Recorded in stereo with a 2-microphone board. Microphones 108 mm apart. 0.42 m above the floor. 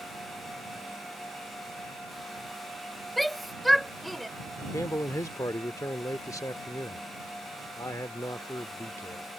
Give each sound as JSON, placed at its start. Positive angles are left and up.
{"t": 3.2, "sound": "a shout", "side_deg": 0}
{"t": 4.7, "sound": "a man speaking", "side_deg": 30}